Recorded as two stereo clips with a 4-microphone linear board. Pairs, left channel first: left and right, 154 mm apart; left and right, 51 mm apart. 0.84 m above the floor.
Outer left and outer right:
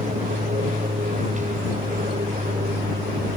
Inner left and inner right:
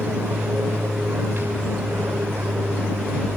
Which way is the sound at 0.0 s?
50° right (ahead or behind).